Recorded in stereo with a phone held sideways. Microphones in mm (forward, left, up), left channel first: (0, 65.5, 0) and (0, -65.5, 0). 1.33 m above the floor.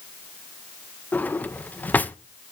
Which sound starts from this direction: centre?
A drawer, at 1.1 s.